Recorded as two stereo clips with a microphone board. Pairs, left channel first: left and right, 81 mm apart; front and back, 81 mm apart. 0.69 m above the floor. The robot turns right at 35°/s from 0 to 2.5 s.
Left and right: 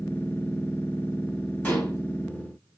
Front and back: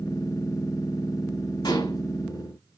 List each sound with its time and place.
1.6 s dishes clattering: 20° left, 4.5 m; by 2.0 s 30° left, 4.5 m